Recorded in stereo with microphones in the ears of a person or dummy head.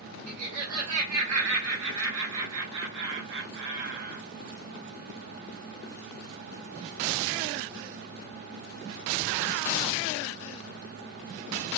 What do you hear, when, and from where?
0.3 s laughter: 85° right, 3 m; by 4.2 s 50° right (ahead or behind), 0.8 m